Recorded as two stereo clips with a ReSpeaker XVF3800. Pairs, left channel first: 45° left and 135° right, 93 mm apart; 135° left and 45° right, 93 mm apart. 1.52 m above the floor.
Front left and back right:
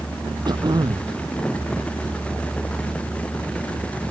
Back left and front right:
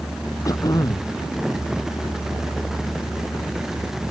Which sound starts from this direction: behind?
Throat clearing, at 0.5 s.